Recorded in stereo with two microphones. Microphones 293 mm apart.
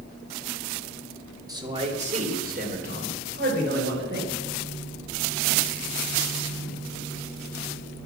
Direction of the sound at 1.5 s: 15° right (ahead or behind).